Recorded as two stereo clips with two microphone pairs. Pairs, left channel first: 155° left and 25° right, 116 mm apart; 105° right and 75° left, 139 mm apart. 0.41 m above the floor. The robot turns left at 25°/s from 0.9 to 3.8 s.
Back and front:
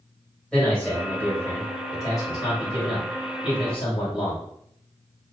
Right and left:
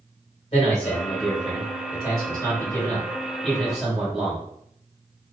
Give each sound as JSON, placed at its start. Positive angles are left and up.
{"t": 0.5, "sound": "a man speaking", "azimuth_deg": -130, "distance_m": 1.9}